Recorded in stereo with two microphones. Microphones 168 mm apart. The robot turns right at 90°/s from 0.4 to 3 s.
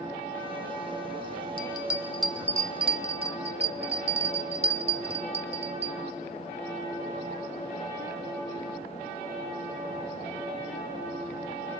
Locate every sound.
1.6 s a bell: 35° left (ahead or behind), 0.9 m; by 6.0 s 35° right (ahead or behind), 0.9 m